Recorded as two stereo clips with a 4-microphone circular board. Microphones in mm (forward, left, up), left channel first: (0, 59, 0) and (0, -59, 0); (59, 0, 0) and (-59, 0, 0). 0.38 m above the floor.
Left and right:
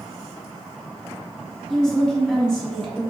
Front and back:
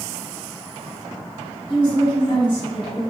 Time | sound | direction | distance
1.7 | a woman speaking | 10° left | 1.2 m